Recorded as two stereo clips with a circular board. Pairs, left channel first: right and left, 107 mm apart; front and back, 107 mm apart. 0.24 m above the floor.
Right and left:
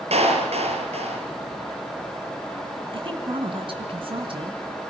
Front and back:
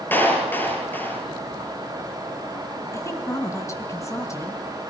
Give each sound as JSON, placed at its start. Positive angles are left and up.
{"t": 0.1, "sound": "a clap", "azimuth_deg": 75, "distance_m": 3.5}
{"t": 2.9, "sound": "a woman speaking", "azimuth_deg": 60, "distance_m": 2.5}